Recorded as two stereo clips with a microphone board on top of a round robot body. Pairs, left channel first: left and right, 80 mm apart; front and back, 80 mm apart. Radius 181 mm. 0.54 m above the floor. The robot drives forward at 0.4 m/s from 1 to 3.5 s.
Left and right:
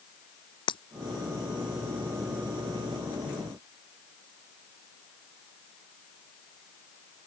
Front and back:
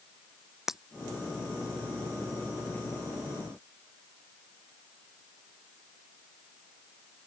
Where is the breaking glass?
95° left.